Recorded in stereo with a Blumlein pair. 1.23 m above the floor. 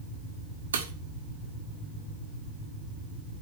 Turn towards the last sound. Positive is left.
turn(degrees=-65)